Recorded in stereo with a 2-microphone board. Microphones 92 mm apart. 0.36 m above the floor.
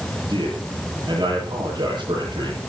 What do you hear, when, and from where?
0.3 s a man speaking: 55° right (ahead or behind), 9 m